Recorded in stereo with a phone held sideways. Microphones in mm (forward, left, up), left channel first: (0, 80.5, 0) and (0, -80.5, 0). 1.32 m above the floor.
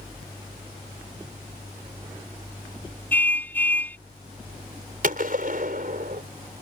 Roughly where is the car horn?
Centre.